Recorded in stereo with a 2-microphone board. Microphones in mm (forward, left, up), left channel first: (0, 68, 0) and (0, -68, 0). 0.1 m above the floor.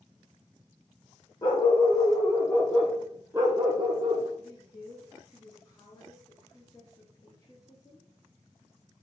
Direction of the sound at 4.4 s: 30° left (ahead or behind).